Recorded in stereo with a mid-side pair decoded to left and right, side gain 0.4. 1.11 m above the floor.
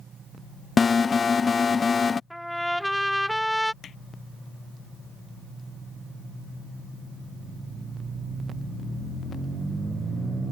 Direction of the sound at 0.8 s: 40° left.